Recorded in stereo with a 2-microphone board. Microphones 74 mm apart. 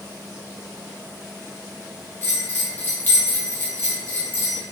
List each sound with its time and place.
2.2 s a bell: 30° left (ahead or behind), 1.2 m